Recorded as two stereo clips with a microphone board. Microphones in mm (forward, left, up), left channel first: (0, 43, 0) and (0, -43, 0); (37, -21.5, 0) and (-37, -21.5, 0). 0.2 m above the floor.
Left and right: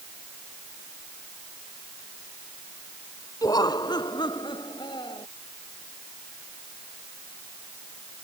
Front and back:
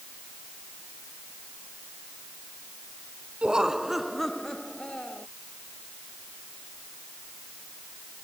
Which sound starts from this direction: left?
Laughter, at 3.4 s.